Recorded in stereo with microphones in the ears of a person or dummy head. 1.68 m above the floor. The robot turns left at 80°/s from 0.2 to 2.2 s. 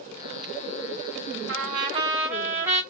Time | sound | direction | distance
1.5 | a trumpet | 120° right | 0.7 m